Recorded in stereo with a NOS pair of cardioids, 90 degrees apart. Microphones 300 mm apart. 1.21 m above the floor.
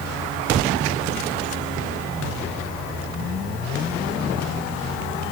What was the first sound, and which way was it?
Only background noise.